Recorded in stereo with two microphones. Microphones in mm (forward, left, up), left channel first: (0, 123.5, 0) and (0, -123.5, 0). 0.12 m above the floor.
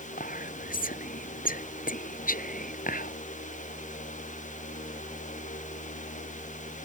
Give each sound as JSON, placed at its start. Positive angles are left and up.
{"t": 0.2, "sound": "whispering", "side_deg": 35}